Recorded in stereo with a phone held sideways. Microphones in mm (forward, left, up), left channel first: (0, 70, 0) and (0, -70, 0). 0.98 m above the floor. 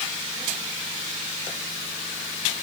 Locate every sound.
Only background noise.